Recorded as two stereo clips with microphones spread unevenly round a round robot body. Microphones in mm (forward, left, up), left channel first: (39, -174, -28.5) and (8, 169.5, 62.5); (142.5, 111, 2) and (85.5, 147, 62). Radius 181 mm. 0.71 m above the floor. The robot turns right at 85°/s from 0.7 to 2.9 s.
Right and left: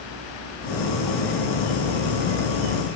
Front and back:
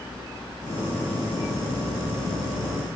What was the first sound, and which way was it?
Only background noise.